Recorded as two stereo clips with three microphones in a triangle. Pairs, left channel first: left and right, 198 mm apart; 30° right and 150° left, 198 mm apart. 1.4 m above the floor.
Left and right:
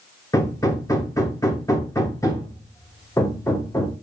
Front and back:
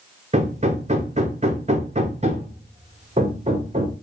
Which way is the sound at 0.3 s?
150° left.